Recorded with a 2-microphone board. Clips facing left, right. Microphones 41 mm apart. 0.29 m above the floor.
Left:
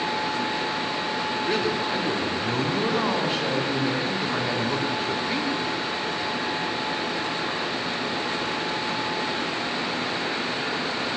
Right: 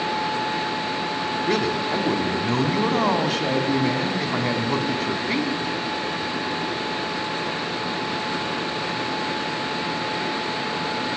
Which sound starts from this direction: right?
A man speaking, at 1.5 s.